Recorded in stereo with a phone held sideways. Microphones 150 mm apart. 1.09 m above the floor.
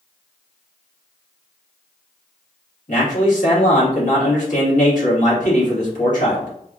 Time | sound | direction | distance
2.9 | a man speaking | 55° left (ahead or behind) | 1.7 m